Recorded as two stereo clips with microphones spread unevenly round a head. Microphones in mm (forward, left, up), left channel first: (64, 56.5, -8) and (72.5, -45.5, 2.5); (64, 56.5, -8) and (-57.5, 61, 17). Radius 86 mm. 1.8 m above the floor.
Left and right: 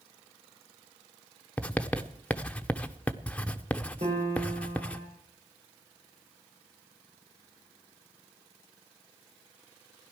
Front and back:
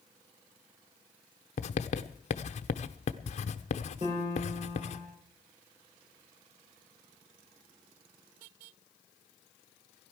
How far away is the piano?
About 4.5 m.